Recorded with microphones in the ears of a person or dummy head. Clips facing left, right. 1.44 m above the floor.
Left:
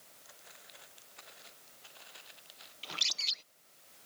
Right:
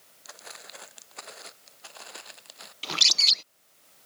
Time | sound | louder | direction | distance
0.2 | footsteps | right 13 dB | 70° right (ahead or behind) | ?
2.8 | a bird | right 11 dB | 70° right (ahead or behind) | ?